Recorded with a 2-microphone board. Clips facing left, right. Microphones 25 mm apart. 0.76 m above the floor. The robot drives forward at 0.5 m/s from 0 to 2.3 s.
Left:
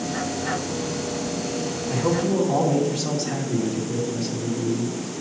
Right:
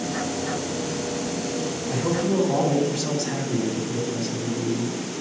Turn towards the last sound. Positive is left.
turn(degrees=25)  # may be behind; listen again after turning